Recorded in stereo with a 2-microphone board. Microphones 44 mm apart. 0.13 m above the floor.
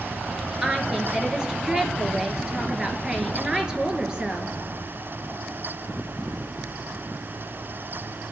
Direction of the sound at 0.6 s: 20° right (ahead or behind).